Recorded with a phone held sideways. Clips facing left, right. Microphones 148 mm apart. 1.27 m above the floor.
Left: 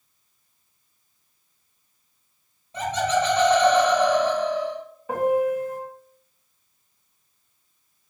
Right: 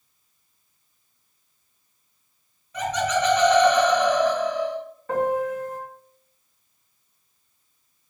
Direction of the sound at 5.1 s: 10° left (ahead or behind).